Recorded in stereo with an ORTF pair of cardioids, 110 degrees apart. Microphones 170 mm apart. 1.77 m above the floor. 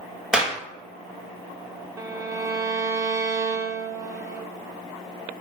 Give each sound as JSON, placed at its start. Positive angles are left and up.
{"t": 0.3, "sound": "a clap", "azimuth_deg": -5, "distance_m": 1.0}
{"t": 2.0, "sound": "a violin", "azimuth_deg": -20, "distance_m": 0.5}